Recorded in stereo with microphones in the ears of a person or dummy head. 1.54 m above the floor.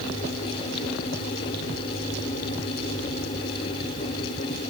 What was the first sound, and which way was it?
Only background noise.